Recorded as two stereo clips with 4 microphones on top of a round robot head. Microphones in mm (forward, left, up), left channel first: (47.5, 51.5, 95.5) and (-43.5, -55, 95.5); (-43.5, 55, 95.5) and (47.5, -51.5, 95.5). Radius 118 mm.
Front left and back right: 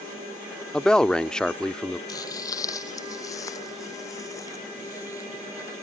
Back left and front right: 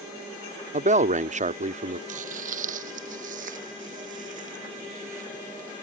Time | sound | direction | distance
0.7 | a man speaking | 35° right | ?
2.1 | footsteps | 15° right | ?